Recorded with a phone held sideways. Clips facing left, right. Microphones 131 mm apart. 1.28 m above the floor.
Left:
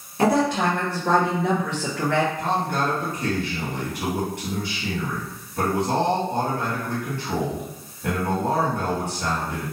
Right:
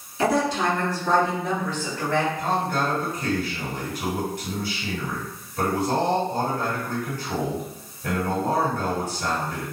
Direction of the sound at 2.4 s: 60° left (ahead or behind).